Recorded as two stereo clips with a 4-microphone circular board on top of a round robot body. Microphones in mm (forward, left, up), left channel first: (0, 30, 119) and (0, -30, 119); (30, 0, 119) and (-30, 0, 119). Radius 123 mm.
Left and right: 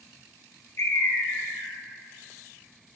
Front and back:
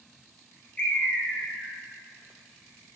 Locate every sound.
0.8 s a bird: 60° left, 0.7 m